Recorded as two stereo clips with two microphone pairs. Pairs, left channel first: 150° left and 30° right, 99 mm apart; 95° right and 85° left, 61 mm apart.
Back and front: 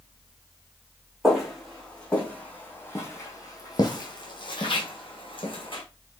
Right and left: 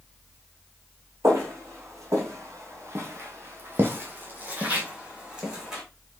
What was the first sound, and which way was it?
Footsteps, 60° left.